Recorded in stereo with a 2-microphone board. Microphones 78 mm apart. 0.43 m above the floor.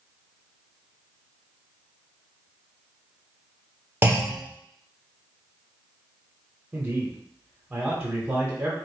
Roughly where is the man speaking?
Centre.